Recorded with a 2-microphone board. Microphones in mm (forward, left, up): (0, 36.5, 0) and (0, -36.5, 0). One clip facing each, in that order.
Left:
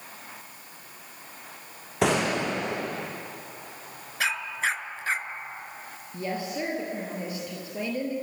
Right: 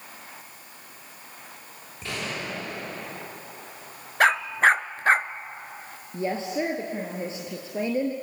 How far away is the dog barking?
About 0.8 m.